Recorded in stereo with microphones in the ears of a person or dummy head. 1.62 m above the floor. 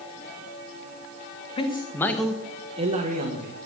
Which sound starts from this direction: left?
A man speaking, at 1.6 s.